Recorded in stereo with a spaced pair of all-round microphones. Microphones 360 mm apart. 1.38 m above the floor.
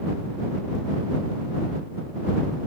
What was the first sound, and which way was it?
Only background noise.